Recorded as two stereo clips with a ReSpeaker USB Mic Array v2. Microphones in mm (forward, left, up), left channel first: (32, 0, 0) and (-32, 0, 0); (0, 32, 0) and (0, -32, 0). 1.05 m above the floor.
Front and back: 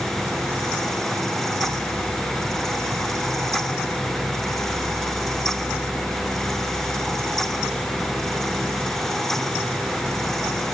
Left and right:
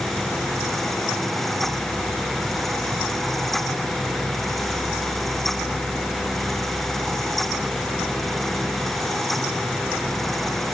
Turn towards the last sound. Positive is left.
No sound to turn to.